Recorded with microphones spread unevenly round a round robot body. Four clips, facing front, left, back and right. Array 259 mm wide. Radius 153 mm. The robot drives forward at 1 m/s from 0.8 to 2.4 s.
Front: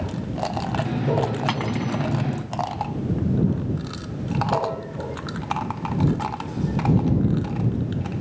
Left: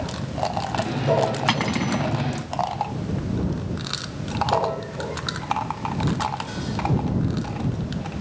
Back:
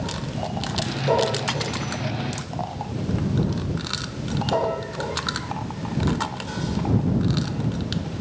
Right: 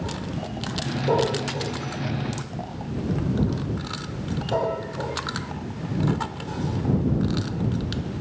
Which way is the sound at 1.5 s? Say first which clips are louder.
Left 7 dB, front 3 dB; 80° left.